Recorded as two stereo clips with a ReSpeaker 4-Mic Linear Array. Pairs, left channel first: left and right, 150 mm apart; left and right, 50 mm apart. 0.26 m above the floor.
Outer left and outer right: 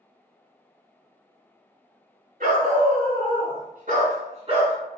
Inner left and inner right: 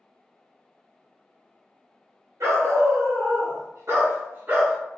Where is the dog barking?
65° right (ahead or behind), 1.6 m; by 4.8 s 30° right (ahead or behind), 1.3 m.